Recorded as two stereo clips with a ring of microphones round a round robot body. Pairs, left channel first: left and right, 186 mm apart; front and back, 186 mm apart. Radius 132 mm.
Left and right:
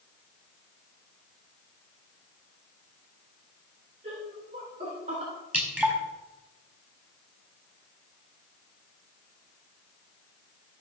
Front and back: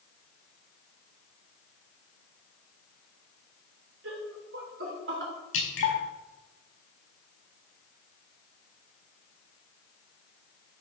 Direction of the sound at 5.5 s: 5° right.